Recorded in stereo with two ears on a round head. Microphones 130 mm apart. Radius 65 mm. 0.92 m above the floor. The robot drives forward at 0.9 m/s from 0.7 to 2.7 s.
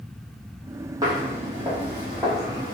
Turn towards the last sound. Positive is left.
turn(degrees=0)  # may be behind; listen again after turning